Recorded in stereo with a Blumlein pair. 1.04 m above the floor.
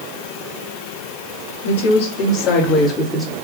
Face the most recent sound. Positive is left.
turn(degrees=5)